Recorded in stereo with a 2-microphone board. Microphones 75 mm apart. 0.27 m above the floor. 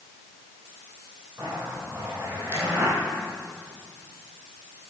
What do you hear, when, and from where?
1.4 s a zipper: 35° right (ahead or behind), 3.5 m